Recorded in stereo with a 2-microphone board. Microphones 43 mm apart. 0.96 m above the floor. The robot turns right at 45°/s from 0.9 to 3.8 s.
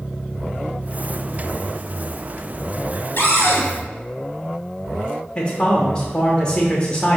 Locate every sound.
3.2 s a cupboard door: 55° left (ahead or behind), 1.5 m; by 3.6 s 75° left (ahead or behind), 1.5 m
5.3 s a man speaking: 20° left (ahead or behind), 0.6 m